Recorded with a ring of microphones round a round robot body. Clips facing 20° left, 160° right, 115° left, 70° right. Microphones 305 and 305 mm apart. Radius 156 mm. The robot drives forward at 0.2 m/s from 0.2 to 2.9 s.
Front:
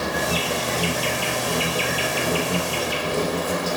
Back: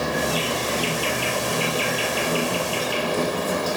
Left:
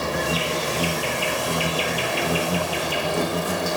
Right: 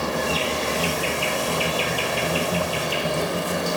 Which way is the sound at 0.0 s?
55° left.